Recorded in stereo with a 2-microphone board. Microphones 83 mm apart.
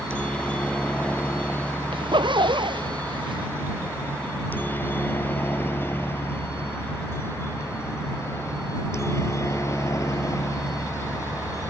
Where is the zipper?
80° right.